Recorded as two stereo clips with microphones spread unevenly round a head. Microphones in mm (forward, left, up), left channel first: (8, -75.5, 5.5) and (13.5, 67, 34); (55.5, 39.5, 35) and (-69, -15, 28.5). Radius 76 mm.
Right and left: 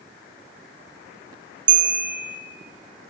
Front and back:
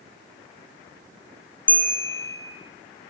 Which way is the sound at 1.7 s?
100° left.